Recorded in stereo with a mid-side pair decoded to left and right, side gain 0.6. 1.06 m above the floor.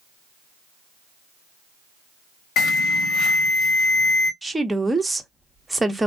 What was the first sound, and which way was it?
An alarm, 65° left.